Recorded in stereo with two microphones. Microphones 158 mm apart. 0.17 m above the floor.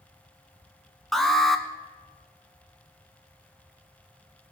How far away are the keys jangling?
I don't hear keys jangling.